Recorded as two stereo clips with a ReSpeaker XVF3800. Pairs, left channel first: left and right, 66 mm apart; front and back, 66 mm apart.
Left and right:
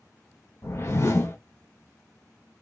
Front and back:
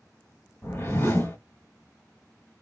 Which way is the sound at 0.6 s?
50° left.